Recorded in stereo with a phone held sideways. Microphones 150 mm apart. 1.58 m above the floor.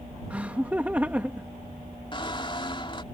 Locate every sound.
0.3 s laughter: 10° right (ahead or behind)
2.1 s a squeak: 35° left (ahead or behind)